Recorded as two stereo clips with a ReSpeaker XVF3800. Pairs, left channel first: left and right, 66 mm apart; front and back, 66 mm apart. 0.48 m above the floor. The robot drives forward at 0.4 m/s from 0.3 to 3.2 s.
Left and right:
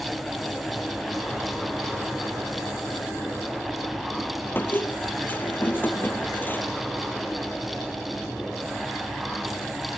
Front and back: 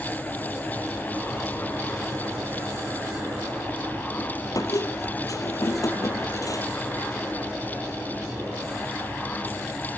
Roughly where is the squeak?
Ahead left.